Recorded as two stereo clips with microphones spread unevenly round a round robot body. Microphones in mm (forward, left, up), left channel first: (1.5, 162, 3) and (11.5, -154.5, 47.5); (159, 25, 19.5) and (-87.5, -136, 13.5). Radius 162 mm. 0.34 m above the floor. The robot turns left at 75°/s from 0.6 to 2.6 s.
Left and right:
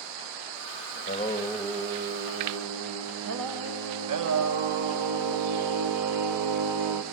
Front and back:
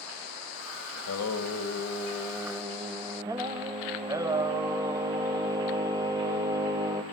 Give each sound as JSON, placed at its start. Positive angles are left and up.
{"t": 0.9, "sound": "singing", "azimuth_deg": 50, "distance_m": 2.0}